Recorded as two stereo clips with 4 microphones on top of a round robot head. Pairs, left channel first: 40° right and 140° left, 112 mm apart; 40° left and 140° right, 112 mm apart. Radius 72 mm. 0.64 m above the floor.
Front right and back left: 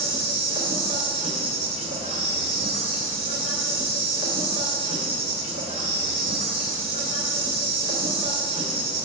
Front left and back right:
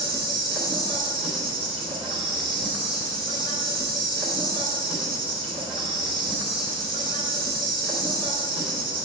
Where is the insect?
Straight behind, 2.5 m.